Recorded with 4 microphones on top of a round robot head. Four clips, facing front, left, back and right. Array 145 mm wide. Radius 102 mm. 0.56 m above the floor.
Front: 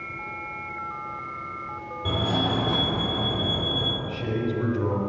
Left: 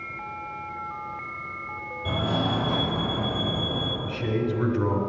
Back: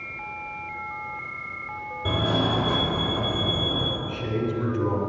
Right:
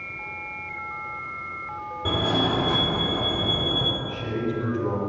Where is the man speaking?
80° left, 2 m.